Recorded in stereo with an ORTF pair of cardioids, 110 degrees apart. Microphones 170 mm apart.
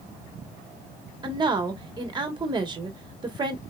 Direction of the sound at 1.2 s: 25° right.